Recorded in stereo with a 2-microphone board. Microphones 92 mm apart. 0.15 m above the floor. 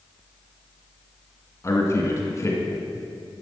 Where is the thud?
I don't hear a thud.